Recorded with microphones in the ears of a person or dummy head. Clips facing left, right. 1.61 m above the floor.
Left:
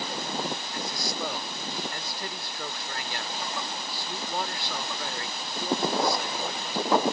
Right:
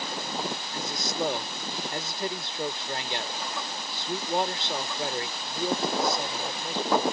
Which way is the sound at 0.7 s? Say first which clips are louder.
Right 2 dB; 20° right (ahead or behind).